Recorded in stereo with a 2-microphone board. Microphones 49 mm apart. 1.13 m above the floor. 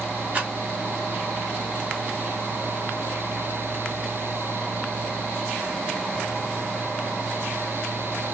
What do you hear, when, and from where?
0.3 s a rattle: 35° right (ahead or behind), 1.2 m